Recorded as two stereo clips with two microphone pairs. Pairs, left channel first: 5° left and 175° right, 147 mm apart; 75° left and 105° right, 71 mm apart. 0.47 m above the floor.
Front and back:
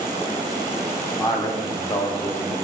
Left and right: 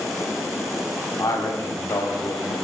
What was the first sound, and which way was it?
A man speaking, 60° left.